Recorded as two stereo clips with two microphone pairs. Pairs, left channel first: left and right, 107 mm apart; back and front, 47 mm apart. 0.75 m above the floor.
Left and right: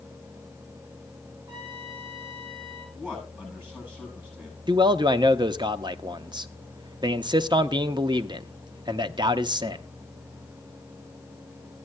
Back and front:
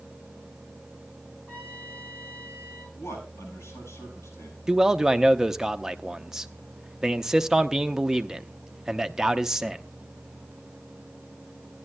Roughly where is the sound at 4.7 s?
Right.